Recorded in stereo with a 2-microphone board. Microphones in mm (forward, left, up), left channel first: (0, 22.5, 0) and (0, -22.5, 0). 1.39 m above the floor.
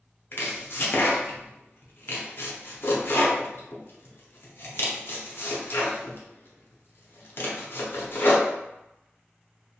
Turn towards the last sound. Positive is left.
turn(degrees=55)  # may be behind; listen again after turning